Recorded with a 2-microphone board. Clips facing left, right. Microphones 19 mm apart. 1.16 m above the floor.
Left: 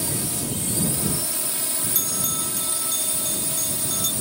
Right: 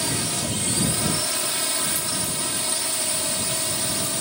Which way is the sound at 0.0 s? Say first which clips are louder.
Right 3 dB; 25° right (ahead or behind).